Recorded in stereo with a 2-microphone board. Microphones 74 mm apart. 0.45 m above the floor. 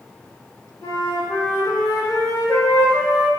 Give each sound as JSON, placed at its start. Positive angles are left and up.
{"t": 0.8, "sound": "a flute", "side_deg": 55, "distance_m": 0.7}